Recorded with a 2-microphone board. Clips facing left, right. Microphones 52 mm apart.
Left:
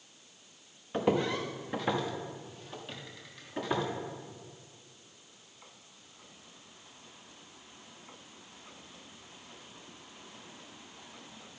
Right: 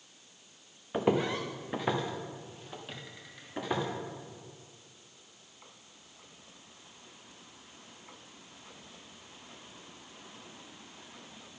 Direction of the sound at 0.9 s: 15° right (ahead or behind).